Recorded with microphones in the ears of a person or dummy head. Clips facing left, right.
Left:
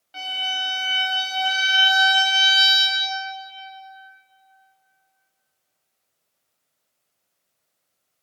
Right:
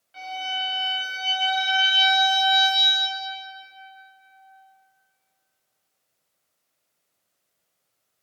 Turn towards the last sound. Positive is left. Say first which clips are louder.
# right 1 dB
turn(degrees=55)  # may be behind; listen again after turning